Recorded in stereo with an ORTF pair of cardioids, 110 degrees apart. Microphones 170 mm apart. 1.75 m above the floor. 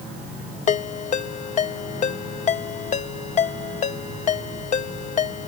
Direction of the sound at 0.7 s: 45° left.